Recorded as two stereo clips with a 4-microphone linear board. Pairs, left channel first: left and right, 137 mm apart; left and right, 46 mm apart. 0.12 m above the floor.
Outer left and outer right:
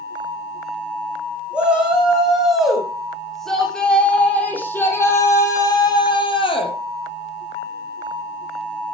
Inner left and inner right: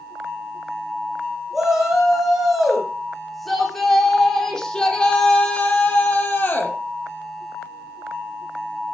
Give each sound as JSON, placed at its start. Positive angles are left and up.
{"t": 1.5, "sound": "a shout", "side_deg": -5, "distance_m": 7.0}